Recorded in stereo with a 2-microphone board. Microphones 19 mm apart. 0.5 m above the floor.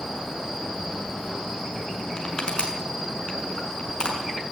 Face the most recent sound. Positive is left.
turn(degrees=45)  # may be behind; listen again after turning